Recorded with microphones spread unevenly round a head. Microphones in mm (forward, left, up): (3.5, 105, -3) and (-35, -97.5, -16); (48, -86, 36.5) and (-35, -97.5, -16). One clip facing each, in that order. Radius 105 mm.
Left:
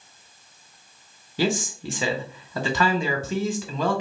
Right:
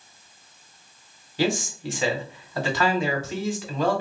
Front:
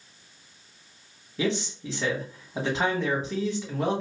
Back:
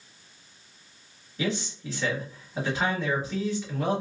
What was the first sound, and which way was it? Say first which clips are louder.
A man speaking: even, front 2 dB; 70° left.